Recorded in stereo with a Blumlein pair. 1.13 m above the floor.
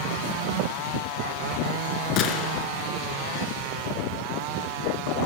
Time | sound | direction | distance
2.2 | a gunshot | 35° left | 4 m